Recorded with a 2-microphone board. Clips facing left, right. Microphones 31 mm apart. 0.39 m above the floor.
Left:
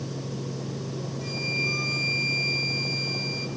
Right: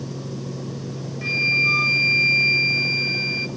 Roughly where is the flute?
Right.